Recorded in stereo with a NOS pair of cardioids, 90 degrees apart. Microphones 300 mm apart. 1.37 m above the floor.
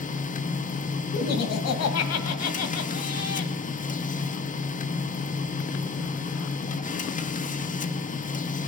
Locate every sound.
0.0 s a machine running: 25° left, 0.8 m
1.1 s laughter: 60° left, 1.7 m